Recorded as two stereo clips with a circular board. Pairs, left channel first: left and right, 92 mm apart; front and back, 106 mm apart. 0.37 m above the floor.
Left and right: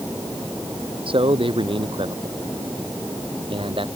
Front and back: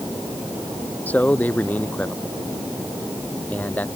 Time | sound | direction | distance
1.1 | a man speaking | 75° right | ?